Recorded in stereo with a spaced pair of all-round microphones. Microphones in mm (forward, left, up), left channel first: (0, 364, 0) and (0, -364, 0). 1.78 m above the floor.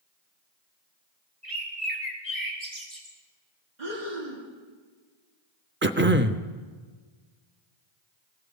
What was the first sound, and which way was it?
A bird, 30° right (ahead or behind).